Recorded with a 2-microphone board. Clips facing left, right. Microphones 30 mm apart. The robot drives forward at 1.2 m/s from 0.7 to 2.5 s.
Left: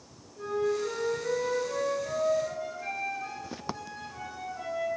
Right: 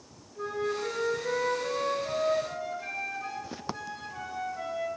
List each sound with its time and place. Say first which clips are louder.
0.3 s a flute: left 2 dB; 10° right (ahead or behind), 3 m; by 4.9 s 5° right (ahead or behind), 5.5 m